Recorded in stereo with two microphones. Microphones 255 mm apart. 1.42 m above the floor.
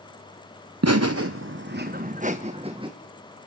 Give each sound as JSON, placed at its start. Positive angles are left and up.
{"t": 0.8, "sound": "laughter", "side_deg": -70, "distance_m": 1.0}